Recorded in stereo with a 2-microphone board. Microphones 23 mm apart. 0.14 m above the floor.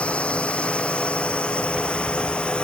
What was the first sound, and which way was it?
A drone, 75° left (ahead or behind).